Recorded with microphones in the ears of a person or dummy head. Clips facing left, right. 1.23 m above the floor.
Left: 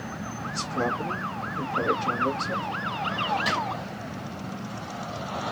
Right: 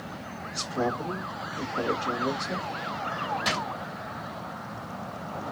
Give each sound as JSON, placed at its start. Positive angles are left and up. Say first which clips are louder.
{"t": 0.5, "sound": "a man speaking", "louder": "even", "side_deg": 30, "distance_m": 1.0}
{"t": 3.5, "sound": "a drawer", "louder": "left 2 dB", "side_deg": 0, "distance_m": 1.3}